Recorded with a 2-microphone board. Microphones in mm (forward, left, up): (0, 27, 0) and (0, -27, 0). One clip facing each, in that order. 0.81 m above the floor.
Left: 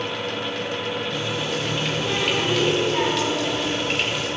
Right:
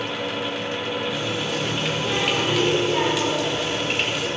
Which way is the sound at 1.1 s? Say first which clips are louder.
Even; 5° right (ahead or behind).